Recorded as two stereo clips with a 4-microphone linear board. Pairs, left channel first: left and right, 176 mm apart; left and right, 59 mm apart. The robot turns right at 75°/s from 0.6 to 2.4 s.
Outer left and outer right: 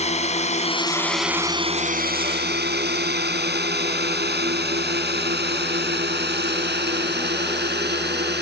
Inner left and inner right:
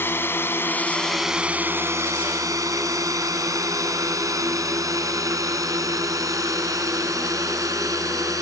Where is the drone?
40° left (ahead or behind); by 8.4 s 75° right (ahead or behind).